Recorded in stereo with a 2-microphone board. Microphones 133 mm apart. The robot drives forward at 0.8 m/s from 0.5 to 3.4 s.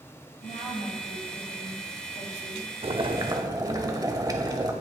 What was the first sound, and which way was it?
A woman speaking, 75° left (ahead or behind).